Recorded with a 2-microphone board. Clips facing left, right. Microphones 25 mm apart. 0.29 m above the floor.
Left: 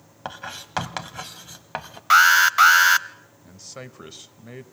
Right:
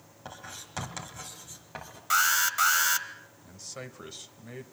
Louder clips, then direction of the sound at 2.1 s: Left 11 dB; 40° left (ahead or behind).